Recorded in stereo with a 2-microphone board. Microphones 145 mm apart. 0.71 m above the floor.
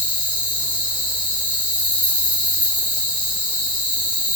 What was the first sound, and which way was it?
An insect, 35° left (ahead or behind).